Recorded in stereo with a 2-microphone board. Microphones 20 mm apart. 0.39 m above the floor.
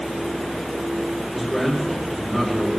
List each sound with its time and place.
1.3 s a man speaking: 5° left (ahead or behind), 5 m